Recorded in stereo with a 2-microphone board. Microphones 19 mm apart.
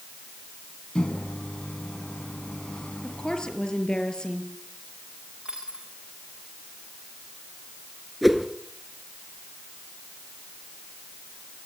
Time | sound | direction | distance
0.9 | a microwave | 65° left (ahead or behind) | 2.5 m
3.0 | a woman speaking | 45° left (ahead or behind) | 5.5 m
5.5 | a dropped coin | 60° right (ahead or behind) | 9.5 m
8.2 | a whoosh | centre (ahead or behind) | 2.5 m